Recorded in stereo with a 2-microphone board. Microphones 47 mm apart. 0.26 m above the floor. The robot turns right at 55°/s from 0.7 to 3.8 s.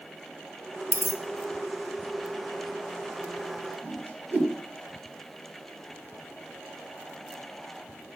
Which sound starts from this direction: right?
A whoosh, at 3.8 s.